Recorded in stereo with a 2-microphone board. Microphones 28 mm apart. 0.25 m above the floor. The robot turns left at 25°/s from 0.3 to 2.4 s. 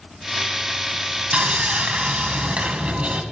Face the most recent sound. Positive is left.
turn(degrees=-45)  # may be behind; listen again after turning